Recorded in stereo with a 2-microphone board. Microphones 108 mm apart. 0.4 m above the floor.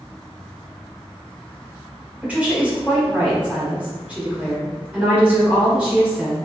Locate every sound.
2.2 s a woman speaking: 10° right (ahead or behind), 1.2 m